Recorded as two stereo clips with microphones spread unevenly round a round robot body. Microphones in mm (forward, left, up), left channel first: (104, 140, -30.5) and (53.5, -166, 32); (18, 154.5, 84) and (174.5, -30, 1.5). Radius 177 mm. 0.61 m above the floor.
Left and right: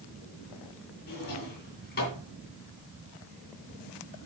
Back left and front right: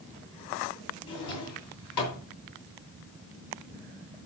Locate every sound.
1.1 s a drawer: 145° left, 2.5 m